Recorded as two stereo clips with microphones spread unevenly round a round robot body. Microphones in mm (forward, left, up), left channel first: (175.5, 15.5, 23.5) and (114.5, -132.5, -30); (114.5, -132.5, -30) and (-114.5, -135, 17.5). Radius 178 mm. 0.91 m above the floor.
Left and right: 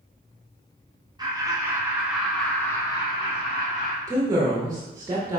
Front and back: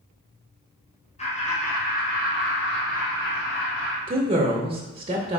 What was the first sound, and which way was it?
Laughter, 55° right.